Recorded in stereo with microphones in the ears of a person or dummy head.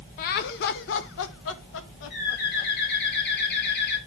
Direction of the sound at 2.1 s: 55° left (ahead or behind).